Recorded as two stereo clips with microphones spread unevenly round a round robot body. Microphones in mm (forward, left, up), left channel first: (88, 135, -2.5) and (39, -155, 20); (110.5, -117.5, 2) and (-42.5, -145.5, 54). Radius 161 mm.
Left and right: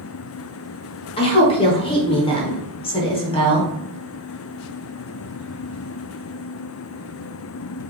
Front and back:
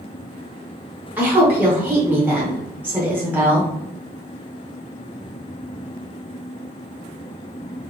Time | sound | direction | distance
1.2 | a woman speaking | 80° left | 0.8 m